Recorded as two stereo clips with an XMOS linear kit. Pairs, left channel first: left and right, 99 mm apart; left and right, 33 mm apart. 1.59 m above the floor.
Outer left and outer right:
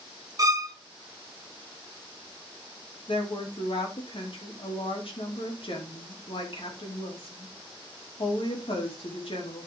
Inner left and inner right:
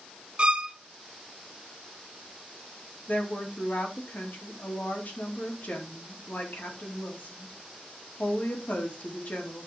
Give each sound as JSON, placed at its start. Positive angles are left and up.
{"t": 0.4, "sound": "a violin", "side_deg": -35, "distance_m": 1.0}
{"t": 3.1, "sound": "a woman speaking", "side_deg": 65, "distance_m": 2.5}